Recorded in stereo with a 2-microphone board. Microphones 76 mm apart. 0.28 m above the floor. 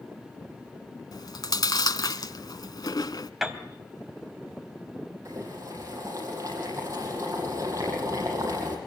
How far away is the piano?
About 2 m.